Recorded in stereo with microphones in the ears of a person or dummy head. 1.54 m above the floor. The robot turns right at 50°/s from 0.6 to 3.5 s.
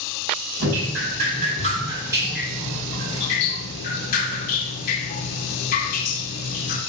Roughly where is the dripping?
Right.